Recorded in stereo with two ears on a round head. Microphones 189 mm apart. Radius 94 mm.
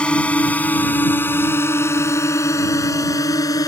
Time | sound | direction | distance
0.0 | a drone | 5° left (ahead or behind) | ?